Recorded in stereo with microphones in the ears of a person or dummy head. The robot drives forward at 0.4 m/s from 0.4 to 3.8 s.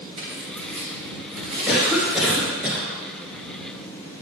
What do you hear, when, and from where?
0.2 s tearing paper: 60° right (ahead or behind), 3 m; by 2.5 s 50° right (ahead or behind), 3.5 m
1.7 s a cough: centre (ahead or behind), 1.6 m